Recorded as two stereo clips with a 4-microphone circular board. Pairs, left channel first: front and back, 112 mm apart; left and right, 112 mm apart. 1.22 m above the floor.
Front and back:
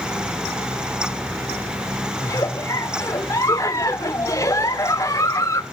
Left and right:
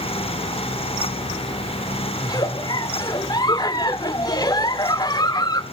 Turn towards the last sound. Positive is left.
turn(degrees=50)